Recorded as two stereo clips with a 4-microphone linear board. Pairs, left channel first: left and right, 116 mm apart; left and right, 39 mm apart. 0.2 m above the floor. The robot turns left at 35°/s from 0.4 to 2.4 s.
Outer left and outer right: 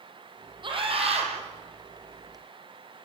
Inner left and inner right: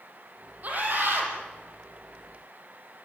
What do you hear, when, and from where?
0.6 s a scream: 45° right (ahead or behind), 6.5 m; by 1.3 s 70° right (ahead or behind), 6.5 m